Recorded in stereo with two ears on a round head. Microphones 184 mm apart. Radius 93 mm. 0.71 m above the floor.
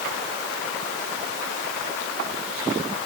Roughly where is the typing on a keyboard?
No typing on a keyboard in this recording.